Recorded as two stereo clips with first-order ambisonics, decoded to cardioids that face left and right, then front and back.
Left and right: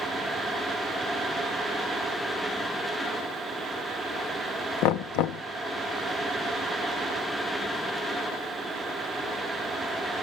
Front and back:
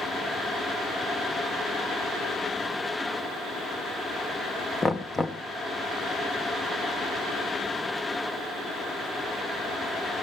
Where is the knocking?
75° left, 0.6 m.